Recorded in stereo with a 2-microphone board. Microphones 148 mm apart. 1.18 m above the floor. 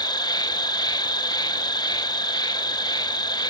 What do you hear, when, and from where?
0.0 s an insect: 30° left (ahead or behind), 0.8 m